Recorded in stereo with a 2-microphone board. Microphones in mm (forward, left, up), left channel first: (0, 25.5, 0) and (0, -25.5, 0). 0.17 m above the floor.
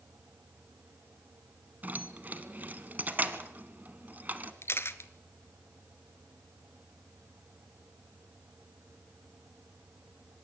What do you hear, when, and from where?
1.8 s keys jangling: 35° right (ahead or behind), 1.2 m
4.6 s a camera shutter: 55° left (ahead or behind), 0.9 m